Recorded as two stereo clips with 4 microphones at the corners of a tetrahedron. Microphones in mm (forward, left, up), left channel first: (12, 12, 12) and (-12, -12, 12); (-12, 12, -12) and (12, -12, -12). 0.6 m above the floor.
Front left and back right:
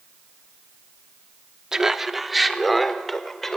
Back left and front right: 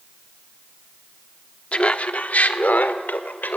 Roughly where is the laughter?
Behind.